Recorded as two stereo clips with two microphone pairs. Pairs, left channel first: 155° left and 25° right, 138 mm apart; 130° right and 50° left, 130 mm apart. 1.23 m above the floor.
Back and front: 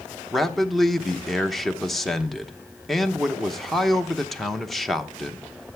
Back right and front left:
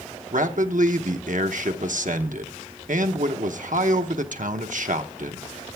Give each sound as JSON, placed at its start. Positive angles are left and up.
{"t": 0.3, "sound": "a man speaking", "azimuth_deg": 65, "distance_m": 0.8}